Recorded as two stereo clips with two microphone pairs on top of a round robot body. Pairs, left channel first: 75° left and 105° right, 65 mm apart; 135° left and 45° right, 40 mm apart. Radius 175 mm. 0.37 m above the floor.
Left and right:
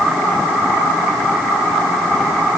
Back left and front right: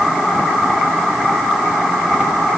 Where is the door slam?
I don't hear a door slam.